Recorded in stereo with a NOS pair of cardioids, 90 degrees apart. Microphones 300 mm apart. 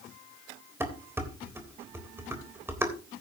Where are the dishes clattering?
10° right, 3.5 m.